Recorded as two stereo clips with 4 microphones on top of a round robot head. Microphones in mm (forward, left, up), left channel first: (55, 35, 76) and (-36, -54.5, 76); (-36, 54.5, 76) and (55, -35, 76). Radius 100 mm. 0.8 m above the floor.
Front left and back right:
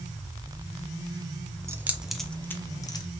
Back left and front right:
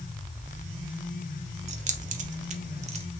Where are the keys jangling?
70° right, 0.8 m; by 3.0 s 10° right, 1.0 m.